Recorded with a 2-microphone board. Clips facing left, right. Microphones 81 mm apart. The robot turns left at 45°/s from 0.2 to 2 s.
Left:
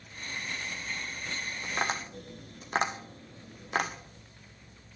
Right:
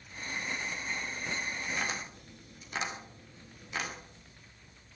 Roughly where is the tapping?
Left.